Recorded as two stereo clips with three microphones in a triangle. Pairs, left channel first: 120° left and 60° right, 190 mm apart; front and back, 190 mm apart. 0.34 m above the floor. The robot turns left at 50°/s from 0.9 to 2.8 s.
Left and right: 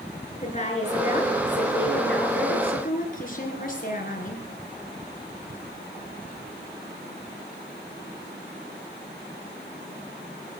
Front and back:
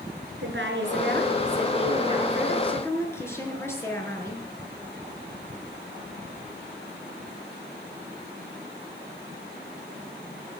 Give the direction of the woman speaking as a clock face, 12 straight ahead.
6 o'clock.